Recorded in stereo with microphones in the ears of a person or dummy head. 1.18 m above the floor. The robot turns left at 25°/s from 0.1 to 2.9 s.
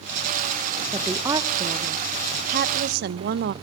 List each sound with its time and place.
0.9 s a woman speaking: 5° right, 0.6 m; by 3.5 s 55° right, 0.6 m